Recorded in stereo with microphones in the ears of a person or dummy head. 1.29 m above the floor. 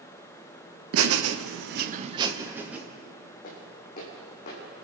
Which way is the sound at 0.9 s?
65° right (ahead or behind).